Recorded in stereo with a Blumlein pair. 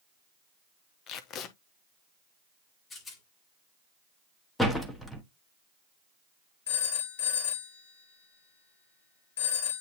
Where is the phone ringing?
60° left, 2.0 m.